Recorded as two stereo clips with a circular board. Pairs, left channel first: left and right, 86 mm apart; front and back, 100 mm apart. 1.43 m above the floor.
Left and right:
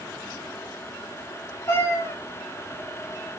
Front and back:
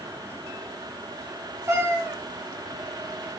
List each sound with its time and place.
1.7 s a cat meowing: 135° left, 1.2 m